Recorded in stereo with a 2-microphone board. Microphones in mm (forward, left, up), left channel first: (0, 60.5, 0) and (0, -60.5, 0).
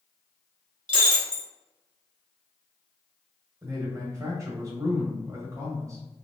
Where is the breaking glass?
45° right (ahead or behind), 1.0 m.